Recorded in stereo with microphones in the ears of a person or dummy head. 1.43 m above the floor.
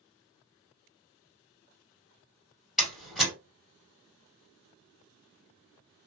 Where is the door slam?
5° right (ahead or behind), 1.8 m.